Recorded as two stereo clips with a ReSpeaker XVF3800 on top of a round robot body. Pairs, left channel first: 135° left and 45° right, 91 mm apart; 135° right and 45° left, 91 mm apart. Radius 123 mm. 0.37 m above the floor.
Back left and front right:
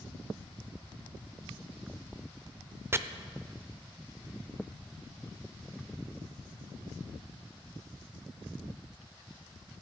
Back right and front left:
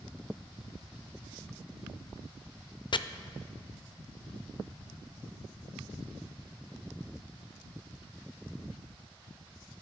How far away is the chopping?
About 0.7 m.